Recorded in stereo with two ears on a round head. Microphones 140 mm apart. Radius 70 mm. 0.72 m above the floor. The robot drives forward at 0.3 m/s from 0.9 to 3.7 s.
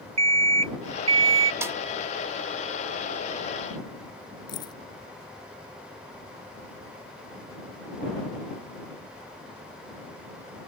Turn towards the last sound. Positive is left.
turn(degrees=30)  # may be behind; listen again after turning